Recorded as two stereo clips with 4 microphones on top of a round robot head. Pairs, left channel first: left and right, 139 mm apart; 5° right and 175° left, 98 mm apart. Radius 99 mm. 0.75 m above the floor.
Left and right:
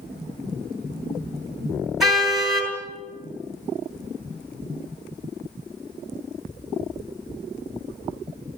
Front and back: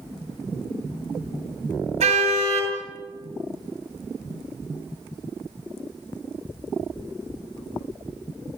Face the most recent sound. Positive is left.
turn(degrees=180)